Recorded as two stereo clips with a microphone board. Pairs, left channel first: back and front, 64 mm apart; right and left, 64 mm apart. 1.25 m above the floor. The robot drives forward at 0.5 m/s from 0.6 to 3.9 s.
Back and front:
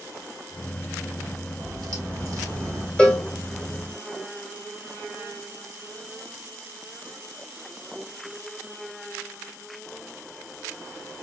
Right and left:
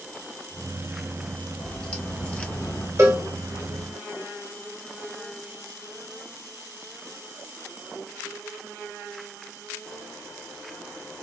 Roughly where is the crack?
Ahead.